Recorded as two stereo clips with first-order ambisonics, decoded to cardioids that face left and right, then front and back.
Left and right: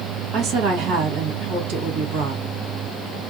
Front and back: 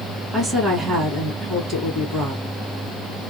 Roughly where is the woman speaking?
Behind right.